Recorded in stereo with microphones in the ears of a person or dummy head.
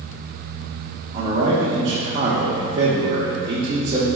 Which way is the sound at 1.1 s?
25° right (ahead or behind).